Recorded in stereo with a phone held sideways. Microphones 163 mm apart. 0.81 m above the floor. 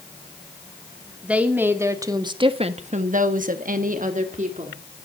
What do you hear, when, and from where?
1.2 s a woman speaking: 5° right (ahead or behind), 2 m; by 4.8 s 45° right (ahead or behind), 2.5 m